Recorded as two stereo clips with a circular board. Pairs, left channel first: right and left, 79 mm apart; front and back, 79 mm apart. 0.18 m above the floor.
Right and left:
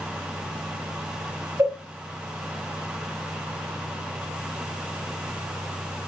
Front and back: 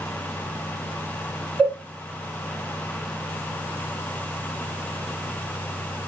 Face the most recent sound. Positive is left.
turn(degrees=110)